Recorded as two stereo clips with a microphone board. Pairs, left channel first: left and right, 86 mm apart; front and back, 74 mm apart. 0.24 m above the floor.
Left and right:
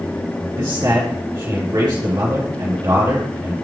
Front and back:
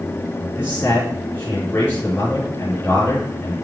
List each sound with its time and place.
0.6 s a man speaking: 55° right, 3.5 m